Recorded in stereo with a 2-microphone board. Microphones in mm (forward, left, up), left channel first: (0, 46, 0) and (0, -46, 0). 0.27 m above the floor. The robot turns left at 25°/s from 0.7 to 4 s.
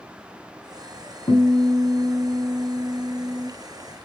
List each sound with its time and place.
1.3 s a guitar: 115° left, 1.8 m; by 3.5 s 55° left, 1.8 m